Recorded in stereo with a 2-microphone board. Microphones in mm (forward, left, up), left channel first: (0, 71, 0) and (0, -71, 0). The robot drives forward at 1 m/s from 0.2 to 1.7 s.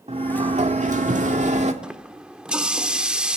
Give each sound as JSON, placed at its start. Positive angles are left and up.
{"t": 0.1, "sound": "a sliding door", "side_deg": -50, "distance_m": 1.8}
{"t": 1.8, "sound": "a running tap", "side_deg": -5, "distance_m": 0.9}